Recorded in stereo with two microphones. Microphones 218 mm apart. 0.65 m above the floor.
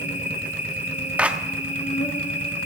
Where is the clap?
5° right (ahead or behind), 0.9 m.